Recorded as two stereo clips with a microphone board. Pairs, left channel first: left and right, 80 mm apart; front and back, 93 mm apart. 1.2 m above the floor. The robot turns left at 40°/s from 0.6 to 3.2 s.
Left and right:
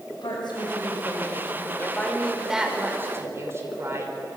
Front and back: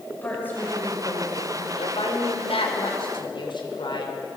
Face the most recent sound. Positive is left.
turn(degrees=-35)